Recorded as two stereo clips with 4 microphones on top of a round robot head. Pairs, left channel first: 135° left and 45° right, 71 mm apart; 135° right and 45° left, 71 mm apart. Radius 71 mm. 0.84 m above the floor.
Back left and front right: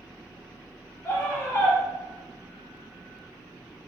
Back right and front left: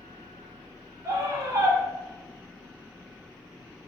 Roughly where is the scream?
Left.